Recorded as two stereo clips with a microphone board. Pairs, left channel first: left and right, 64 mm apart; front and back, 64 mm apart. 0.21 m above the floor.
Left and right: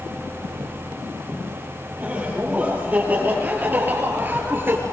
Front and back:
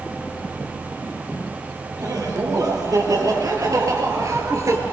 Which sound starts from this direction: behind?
Laughter, at 2.0 s.